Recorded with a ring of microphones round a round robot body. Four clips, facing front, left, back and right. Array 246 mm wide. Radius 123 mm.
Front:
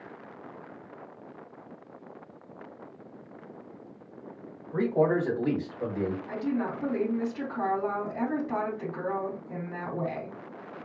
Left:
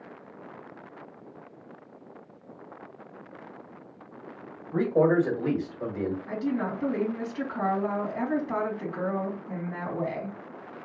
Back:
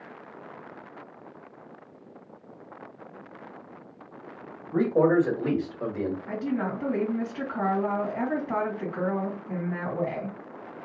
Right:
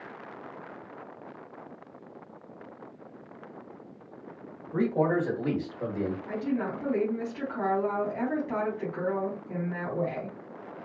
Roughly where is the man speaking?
Behind left.